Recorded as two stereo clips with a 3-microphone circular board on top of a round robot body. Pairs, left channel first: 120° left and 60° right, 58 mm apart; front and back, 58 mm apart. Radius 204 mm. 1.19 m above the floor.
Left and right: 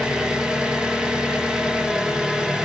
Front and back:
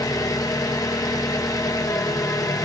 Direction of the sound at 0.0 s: 15° left.